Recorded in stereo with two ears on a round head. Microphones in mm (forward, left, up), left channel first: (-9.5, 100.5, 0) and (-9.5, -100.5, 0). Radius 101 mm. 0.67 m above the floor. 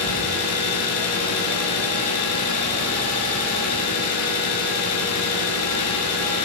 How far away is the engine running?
About 7 m.